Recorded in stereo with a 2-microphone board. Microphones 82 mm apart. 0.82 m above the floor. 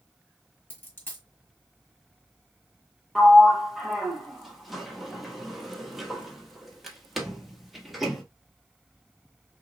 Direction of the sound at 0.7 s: 25° left (ahead or behind).